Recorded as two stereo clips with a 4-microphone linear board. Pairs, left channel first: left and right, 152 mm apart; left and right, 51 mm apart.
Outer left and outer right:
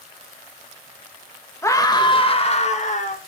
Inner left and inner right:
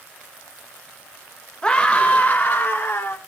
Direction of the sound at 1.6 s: 15° left (ahead or behind).